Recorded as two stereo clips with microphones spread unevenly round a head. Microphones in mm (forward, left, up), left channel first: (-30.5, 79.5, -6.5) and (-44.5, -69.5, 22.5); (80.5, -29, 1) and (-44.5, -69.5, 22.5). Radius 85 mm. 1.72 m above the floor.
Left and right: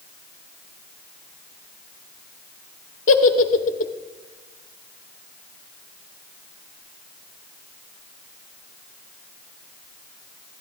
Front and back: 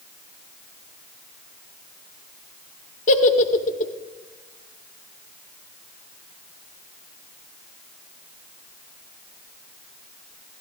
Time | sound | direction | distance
3.1 | a giggle | 45° left | 0.7 m